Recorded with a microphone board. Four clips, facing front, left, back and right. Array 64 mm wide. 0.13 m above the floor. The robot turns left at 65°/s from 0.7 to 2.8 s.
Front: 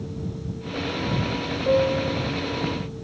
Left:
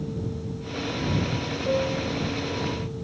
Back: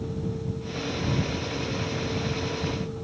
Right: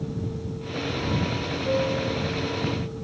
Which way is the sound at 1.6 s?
5° left.